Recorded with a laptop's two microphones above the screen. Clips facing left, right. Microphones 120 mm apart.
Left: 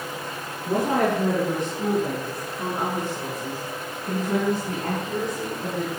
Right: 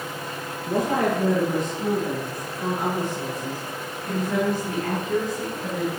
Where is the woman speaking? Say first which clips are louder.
Left 1 dB; 45° left (ahead or behind), 9 m; by 5.9 s 20° left (ahead or behind), 7 m.